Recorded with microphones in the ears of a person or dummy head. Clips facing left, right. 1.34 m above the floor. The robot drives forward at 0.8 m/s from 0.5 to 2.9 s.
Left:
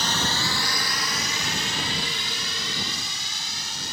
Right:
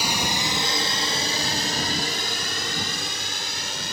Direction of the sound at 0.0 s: 10° right (ahead or behind).